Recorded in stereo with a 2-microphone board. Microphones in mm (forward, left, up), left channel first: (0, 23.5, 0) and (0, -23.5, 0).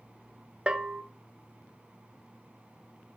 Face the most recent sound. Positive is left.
turn(degrees=-20)  # may be behind; listen again after turning